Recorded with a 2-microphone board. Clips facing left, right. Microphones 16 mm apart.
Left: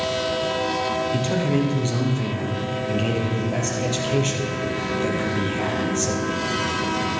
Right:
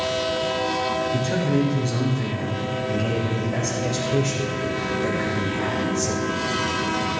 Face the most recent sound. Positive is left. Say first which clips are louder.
# even
turn(degrees=45)  # may be behind; listen again after turning